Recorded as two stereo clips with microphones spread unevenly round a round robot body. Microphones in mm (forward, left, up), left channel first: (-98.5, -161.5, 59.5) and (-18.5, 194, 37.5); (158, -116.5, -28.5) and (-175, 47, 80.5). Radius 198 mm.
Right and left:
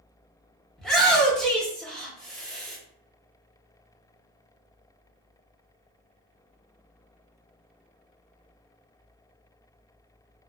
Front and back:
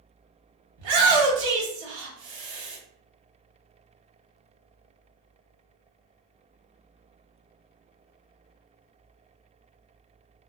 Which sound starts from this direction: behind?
A shout, at 0.8 s.